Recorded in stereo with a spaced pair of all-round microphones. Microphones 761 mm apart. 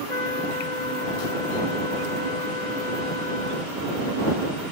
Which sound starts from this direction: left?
A trumpet, at 0.1 s.